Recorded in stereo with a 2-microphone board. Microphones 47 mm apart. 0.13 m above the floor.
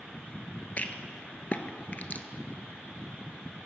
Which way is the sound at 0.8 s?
40° left (ahead or behind).